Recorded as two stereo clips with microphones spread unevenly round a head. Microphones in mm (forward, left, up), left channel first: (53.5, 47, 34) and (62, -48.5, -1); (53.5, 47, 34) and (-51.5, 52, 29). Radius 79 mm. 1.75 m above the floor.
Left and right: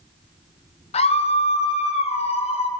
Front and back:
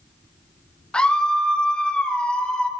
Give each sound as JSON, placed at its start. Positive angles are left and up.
{"t": 0.9, "sound": "a scream", "azimuth_deg": 80, "distance_m": 1.1}